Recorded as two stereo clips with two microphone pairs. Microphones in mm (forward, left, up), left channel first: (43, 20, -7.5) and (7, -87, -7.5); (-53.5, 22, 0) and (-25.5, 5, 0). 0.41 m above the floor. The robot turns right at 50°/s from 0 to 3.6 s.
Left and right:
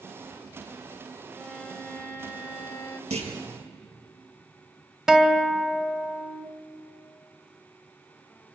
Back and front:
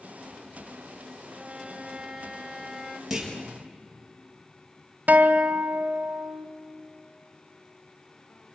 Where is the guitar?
25° right, 1.2 m.